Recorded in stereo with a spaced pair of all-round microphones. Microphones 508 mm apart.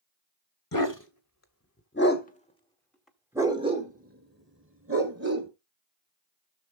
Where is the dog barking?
40° left (ahead or behind), 1.5 m; by 5.5 s 30° right (ahead or behind), 1.9 m.